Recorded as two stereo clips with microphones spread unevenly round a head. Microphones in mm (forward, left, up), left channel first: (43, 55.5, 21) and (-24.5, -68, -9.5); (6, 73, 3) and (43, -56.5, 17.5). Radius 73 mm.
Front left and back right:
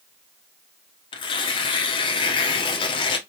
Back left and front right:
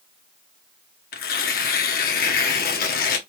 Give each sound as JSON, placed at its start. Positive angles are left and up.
{"t": 1.1, "sound": "tearing paper", "azimuth_deg": 120, "distance_m": 0.8}